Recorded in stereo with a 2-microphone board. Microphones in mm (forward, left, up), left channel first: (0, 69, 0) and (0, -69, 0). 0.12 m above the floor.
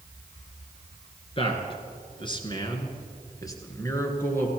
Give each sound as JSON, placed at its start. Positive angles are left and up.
{"t": 1.4, "sound": "a man speaking", "side_deg": 35, "distance_m": 2.0}